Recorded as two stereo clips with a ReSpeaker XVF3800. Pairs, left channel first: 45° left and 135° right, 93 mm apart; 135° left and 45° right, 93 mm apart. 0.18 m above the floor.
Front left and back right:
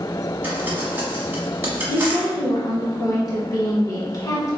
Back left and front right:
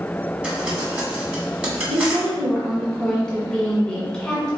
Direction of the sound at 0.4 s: 105° right.